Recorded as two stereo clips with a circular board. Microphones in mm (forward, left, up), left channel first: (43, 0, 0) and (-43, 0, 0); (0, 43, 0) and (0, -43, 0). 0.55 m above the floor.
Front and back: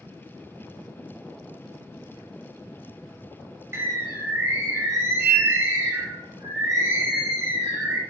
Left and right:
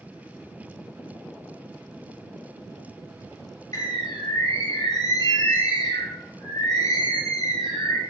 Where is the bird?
125° left, 0.6 m.